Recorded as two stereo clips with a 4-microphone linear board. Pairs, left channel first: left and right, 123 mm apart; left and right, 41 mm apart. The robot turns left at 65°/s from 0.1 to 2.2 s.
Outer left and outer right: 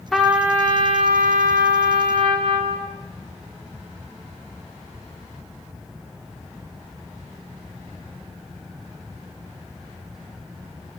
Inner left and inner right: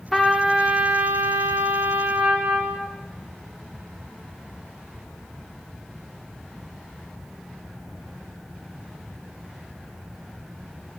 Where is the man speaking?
No man speaking in this recording.